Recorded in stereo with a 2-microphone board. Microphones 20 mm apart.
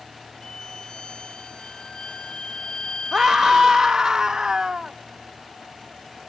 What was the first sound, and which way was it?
A violin, 50° left (ahead or behind).